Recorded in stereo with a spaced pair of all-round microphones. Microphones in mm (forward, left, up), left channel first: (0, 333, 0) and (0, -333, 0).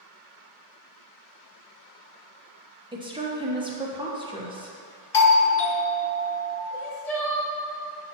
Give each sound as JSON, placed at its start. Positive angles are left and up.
{"t": 2.9, "sound": "a woman speaking", "side_deg": -5, "distance_m": 0.9}
{"t": 5.1, "sound": "a doorbell", "side_deg": 40, "distance_m": 0.7}
{"t": 6.7, "sound": "crying", "side_deg": 65, "distance_m": 1.1}